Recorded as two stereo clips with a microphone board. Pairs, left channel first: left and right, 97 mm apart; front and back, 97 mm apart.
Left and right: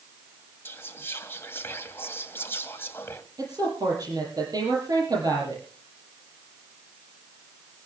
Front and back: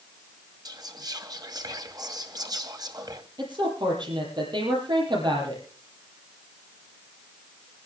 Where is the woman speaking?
140° right, 7 m.